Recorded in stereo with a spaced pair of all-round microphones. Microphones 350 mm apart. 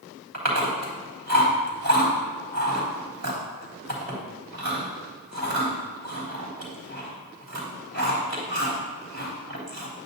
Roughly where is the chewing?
Right.